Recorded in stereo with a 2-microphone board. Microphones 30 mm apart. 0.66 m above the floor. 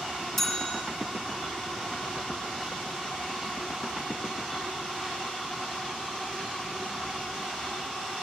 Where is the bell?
10° left (ahead or behind), 1.5 m.